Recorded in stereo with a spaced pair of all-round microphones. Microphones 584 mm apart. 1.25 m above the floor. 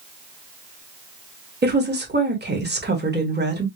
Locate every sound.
1.6 s a woman speaking: 15° right (ahead or behind), 1.1 m